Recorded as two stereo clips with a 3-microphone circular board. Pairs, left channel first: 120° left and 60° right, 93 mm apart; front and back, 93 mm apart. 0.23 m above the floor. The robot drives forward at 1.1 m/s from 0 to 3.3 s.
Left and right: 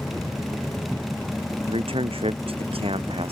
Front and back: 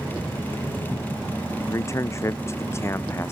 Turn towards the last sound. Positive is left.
turn(degrees=-65)